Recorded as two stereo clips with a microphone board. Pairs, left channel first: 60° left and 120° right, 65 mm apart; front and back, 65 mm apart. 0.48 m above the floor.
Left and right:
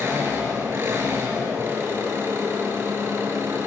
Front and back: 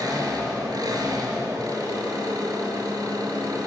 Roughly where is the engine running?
Behind.